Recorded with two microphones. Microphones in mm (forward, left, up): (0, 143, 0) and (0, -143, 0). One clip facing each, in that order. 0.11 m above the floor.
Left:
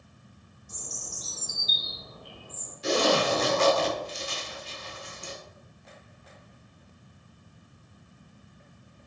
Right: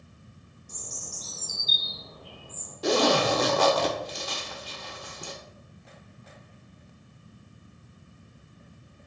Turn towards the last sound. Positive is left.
turn(degrees=-75)  # may be behind; listen again after turning